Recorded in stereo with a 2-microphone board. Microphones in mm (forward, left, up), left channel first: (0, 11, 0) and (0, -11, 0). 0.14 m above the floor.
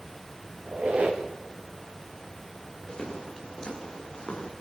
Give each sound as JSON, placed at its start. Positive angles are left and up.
{"t": 0.7, "sound": "a squeak", "side_deg": -60, "distance_m": 4.0}
{"t": 2.9, "sound": "footsteps", "side_deg": 35, "distance_m": 8.5}